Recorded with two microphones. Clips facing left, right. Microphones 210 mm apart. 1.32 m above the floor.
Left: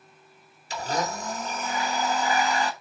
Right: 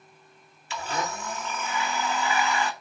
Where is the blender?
40° left (ahead or behind), 1.3 m.